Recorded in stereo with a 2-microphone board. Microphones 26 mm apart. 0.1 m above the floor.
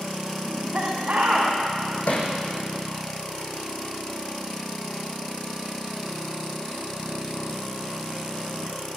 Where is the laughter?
60° right (ahead or behind), 8 m.